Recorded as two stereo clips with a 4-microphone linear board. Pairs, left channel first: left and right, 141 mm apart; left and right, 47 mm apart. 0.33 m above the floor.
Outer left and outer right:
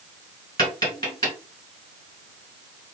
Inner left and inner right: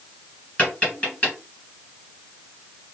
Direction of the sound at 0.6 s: 25° left (ahead or behind).